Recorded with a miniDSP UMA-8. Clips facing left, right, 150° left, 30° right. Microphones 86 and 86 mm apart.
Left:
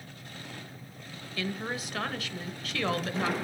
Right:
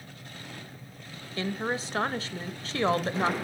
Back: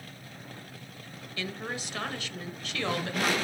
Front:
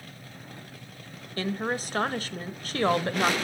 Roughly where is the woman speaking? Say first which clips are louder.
Right 4 dB, front 7 dB; ahead right.